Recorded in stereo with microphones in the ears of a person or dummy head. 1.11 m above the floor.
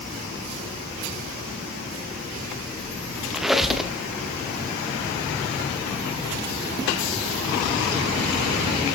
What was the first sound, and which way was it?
A squeak, centre (ahead or behind).